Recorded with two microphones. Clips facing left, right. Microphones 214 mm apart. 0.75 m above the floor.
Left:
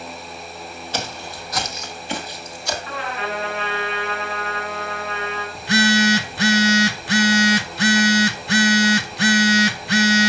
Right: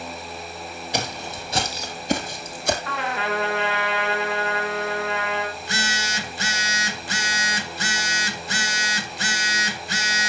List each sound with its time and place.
0.9 s footsteps: 15° right (ahead or behind), 1.7 m; by 2.8 s 55° right (ahead or behind), 1.6 m
2.9 s a trumpet: 80° right, 3 m
5.5 s a phone buzzing: 65° left (ahead or behind), 0.7 m